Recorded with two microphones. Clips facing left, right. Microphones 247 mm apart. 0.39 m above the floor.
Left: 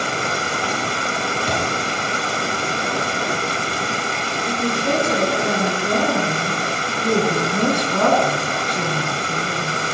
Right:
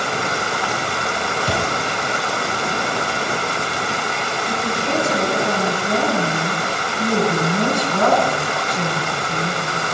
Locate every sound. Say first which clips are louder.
0.0 s running water: right 1 dB; 35° left (ahead or behind), 1.0 m
1.5 s an explosion: right 2 dB; 10° right (ahead or behind), 2.5 m
4.5 s a woman speaking: left 3 dB; 75° left (ahead or behind), 7 m